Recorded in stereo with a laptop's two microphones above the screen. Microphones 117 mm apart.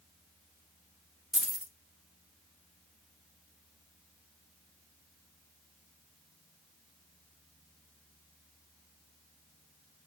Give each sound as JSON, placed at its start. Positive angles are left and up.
{"t": 1.3, "sound": "keys jangling", "side_deg": -5, "distance_m": 0.5}